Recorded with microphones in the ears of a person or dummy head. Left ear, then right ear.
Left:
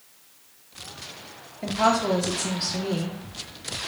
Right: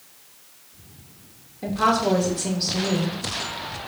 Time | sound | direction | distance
1.6 | a woman speaking | 15° left (ahead or behind) | 0.7 m